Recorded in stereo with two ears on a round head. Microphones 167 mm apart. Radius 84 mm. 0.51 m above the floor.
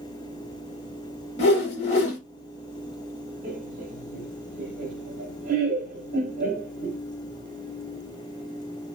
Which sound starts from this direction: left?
A whoosh, at 1.4 s.